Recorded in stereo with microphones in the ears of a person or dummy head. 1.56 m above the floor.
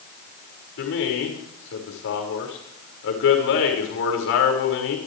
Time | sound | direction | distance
0.8 | a man speaking | 80° left | 6 m